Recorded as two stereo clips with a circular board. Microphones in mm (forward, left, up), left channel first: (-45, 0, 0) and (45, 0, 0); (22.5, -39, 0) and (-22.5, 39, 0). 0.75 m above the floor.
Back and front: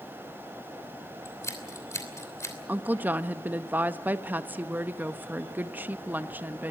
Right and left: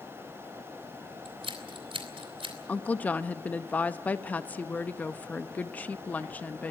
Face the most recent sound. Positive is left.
turn(degrees=-15)